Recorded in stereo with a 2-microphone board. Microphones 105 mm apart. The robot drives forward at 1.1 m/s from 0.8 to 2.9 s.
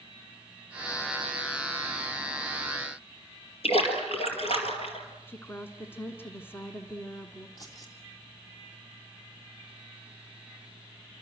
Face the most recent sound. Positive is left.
turn(degrees=35)  # may be behind; listen again after turning